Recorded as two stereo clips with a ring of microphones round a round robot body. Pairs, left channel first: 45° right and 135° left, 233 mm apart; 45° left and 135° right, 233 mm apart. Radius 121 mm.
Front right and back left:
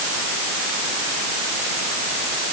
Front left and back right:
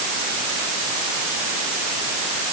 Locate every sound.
Only background noise.